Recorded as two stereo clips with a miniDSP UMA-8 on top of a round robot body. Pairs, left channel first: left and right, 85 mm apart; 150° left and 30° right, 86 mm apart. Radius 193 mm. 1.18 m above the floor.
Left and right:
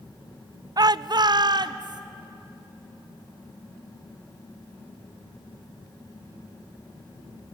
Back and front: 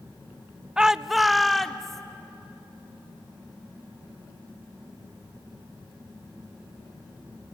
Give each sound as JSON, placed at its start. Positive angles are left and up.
{"t": 0.8, "sound": "a shout", "azimuth_deg": -110, "distance_m": 0.5}